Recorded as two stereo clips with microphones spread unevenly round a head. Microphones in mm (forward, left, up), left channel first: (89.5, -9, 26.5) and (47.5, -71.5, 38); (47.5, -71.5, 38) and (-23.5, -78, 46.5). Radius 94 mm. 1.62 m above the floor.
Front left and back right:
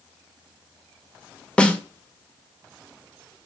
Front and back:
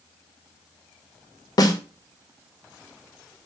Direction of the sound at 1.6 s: 25° right.